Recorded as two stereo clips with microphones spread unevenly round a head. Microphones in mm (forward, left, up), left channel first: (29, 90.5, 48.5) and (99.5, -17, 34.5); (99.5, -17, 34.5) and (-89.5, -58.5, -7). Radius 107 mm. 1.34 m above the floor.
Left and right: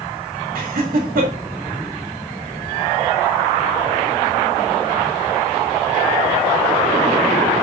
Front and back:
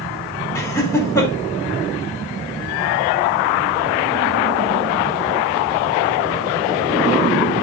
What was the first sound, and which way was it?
Laughter, 60° right.